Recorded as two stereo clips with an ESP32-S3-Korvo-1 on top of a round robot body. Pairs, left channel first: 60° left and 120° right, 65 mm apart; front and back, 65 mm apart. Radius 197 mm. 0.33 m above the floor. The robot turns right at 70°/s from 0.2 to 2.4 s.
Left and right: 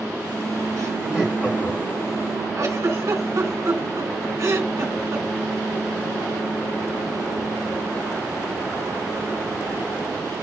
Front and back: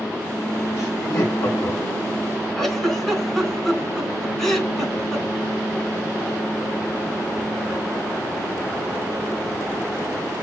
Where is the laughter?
80° right, 3.5 m; by 2.0 s 10° left, 3.5 m.